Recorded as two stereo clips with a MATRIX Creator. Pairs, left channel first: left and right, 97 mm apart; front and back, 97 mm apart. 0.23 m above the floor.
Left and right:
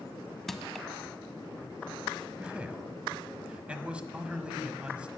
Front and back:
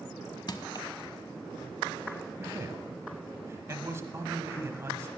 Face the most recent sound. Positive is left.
turn(degrees=-155)